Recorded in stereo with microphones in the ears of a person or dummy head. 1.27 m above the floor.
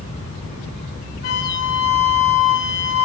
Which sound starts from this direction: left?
A flute, at 1.2 s.